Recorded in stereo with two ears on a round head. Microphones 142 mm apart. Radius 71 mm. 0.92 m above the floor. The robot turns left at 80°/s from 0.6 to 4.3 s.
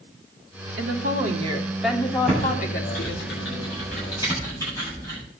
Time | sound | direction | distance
0.8 | a woman speaking | 90° right | 2.5 m
2.3 | typing on a keyboard | centre (ahead or behind) | 8 m